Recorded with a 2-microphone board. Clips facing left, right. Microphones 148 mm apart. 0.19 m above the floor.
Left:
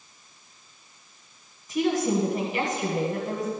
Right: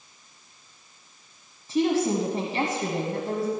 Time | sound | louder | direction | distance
1.7 | a woman speaking | right 1 dB | 30° right (ahead or behind) | 1.4 m